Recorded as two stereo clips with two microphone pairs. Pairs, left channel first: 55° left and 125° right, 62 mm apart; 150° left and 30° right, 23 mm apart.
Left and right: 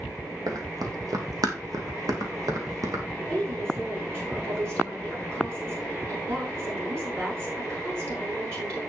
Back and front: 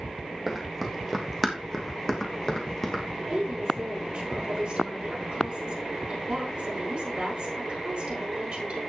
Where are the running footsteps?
110° right, 2 m; by 3.0 s 145° right, 2.5 m.